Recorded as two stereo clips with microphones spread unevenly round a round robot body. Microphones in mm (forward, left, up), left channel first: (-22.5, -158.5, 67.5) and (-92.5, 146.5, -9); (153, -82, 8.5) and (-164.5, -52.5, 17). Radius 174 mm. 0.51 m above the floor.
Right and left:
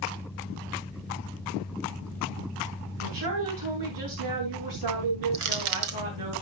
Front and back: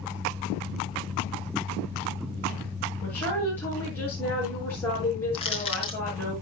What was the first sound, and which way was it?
A woman speaking, 80° left.